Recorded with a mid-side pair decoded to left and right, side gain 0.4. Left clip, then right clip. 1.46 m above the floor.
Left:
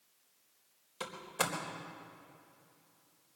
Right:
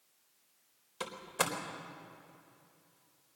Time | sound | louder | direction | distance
1.0 | a door slam | right 1 dB | 25° right | 4 m